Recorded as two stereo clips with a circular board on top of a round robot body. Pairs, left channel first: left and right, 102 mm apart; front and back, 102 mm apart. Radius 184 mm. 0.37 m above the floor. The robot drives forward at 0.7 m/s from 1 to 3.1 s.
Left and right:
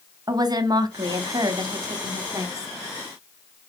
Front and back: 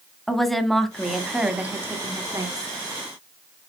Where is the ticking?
No ticking in this recording.